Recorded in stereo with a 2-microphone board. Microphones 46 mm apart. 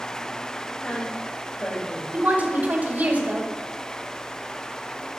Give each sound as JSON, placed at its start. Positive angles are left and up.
{"t": 0.8, "sound": "a woman speaking", "side_deg": 25, "distance_m": 1.5}
{"t": 2.1, "sound": "a woman speaking", "side_deg": -40, "distance_m": 1.4}